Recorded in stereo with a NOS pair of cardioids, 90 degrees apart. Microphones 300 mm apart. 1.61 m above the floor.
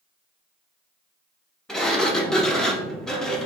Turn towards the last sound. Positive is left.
turn(degrees=0)